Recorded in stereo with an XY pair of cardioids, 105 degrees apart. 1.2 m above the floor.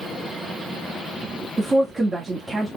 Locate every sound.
1.6 s a woman speaking: 25° right, 2 m